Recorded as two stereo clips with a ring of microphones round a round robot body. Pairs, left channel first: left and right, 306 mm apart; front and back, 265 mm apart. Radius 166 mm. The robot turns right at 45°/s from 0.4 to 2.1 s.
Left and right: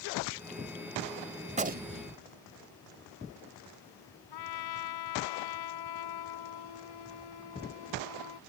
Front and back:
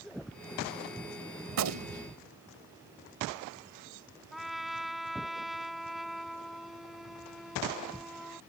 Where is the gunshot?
165° right; by 2.2 s 135° right.